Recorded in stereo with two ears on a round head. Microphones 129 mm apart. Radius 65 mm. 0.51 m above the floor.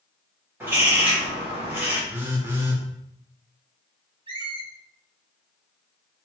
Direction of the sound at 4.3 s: 40° right (ahead or behind).